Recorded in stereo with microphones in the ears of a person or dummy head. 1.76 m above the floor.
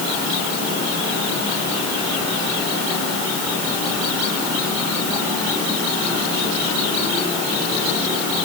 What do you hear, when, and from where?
Only background noise.